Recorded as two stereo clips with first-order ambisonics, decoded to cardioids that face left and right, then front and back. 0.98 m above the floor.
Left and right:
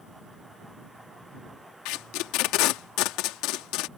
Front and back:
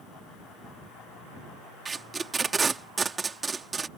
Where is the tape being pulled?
105° left.